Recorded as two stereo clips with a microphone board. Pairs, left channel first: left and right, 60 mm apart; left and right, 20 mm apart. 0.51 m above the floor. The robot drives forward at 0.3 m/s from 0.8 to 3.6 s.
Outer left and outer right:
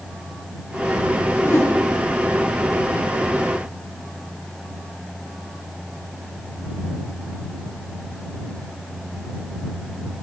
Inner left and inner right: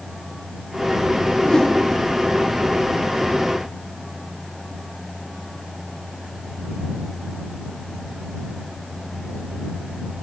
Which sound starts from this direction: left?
A whoosh, at 1.4 s.